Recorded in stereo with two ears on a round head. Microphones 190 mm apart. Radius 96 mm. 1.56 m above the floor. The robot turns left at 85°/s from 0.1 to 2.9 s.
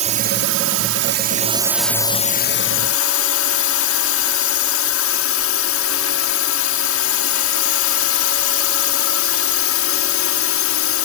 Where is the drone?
35° right; by 11.1 s 90° left.